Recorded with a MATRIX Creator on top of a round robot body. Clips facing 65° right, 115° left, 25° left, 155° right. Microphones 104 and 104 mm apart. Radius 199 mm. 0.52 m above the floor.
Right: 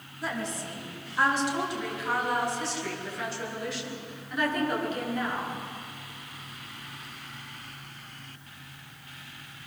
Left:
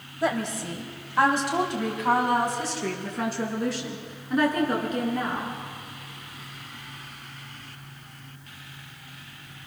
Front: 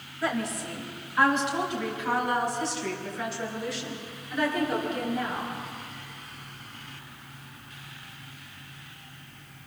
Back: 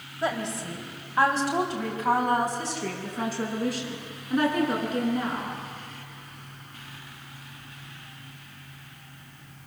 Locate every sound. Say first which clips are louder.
0.2 s a woman speaking: left 7 dB, back 1 dB; 135° left, 4 m; by 5.5 s 165° left, 9.5 m